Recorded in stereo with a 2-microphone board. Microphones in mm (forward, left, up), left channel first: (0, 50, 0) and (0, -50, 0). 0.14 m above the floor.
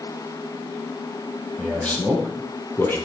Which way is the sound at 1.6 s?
15° left (ahead or behind).